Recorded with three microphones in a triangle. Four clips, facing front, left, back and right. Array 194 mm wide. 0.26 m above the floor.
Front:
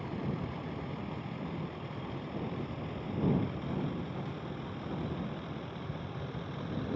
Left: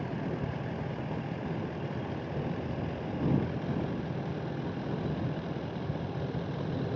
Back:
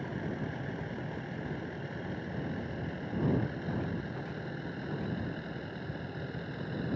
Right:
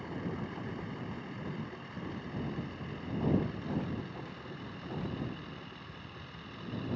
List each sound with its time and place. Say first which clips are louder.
0.0 s a vehicle: left 4 dB, even; 105° left; by 7.0 s 95° left